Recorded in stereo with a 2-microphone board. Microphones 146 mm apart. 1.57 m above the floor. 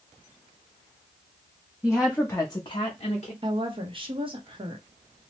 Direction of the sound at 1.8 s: 10° right (ahead or behind).